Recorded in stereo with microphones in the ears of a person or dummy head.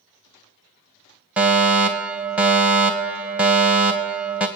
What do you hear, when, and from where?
1.4 s a fire alarm: 10° right (ahead or behind), 1.8 m